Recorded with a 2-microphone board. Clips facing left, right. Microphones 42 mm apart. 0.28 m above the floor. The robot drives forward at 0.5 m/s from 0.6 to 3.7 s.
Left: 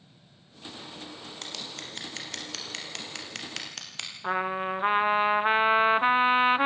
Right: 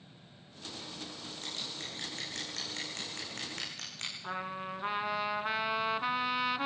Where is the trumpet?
40° left (ahead or behind), 0.5 m.